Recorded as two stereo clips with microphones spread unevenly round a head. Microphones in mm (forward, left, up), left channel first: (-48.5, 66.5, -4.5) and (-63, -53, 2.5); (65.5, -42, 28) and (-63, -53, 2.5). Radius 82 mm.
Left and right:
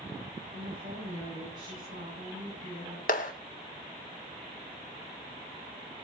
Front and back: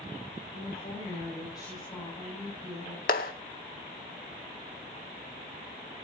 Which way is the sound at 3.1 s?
40° left.